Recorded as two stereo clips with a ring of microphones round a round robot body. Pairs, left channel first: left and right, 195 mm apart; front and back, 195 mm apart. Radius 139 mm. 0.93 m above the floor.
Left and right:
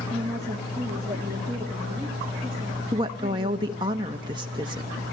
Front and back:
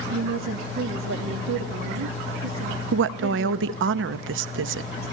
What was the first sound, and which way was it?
A woman speaking, 165° right.